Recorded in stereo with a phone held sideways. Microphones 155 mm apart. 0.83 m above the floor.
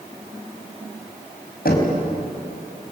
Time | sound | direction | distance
1.6 | knocking | 80° left | 4.5 m